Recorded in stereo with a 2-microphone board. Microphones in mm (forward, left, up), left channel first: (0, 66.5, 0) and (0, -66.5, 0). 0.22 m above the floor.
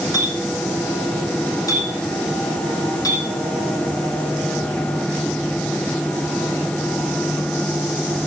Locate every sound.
0.1 s a clink: 25° left (ahead or behind), 7 m